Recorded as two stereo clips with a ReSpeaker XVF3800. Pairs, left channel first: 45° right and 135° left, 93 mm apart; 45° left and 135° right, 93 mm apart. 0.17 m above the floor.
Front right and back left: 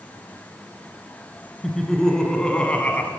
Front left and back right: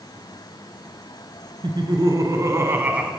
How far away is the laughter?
About 1.8 m.